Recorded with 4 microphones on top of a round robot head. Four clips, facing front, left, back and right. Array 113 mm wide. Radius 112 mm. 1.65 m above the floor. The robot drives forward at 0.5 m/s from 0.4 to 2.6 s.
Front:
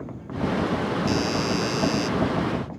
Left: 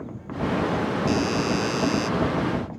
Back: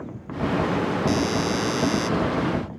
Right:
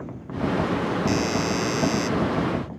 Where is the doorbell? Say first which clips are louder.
Left 2 dB, back 1 dB; 125° right.